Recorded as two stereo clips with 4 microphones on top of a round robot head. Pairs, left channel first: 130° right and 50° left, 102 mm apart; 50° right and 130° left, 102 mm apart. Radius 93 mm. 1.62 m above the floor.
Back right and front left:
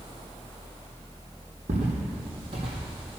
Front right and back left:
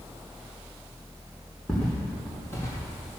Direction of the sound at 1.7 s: 25° left.